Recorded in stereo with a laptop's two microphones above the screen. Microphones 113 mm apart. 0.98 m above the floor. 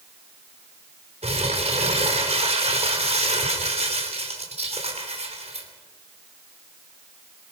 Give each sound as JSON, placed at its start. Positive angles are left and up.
{"t": 1.2, "sound": "crumpling", "side_deg": -70, "distance_m": 3.0}